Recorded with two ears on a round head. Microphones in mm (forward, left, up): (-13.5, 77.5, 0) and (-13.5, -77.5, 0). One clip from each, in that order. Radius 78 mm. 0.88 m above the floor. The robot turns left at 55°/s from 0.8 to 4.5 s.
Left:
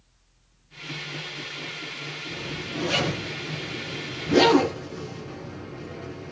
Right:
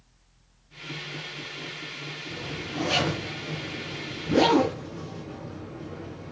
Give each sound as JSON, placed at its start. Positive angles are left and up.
{"t": 2.3, "sound": "a zipper", "side_deg": -45, "distance_m": 7.5}